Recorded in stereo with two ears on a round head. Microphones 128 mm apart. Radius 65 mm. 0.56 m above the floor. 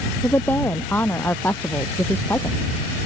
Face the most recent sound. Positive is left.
turn(degrees=15)  # may be behind; listen again after turning